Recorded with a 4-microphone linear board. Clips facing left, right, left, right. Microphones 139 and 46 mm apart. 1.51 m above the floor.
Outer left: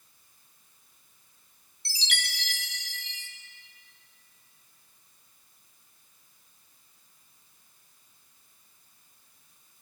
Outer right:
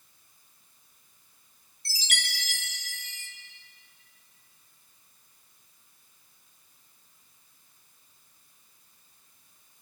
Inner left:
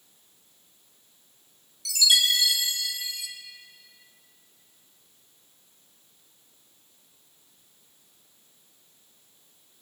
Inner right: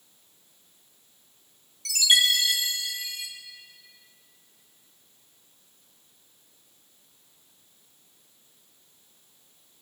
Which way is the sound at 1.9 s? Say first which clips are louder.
Even, inner right 1 dB; 45° right (ahead or behind).